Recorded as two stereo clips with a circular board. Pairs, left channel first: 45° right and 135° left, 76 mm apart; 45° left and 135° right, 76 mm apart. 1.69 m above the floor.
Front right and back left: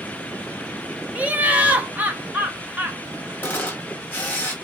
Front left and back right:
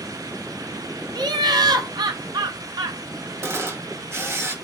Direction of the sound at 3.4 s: 100° right.